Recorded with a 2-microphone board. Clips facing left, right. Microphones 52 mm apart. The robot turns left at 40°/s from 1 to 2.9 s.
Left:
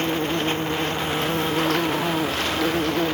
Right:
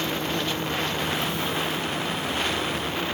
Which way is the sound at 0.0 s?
140° left.